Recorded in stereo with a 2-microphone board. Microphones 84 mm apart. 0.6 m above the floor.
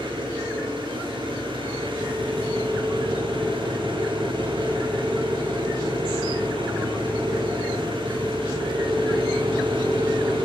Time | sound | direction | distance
0.0 | an engine running | 85° right | 7.5 m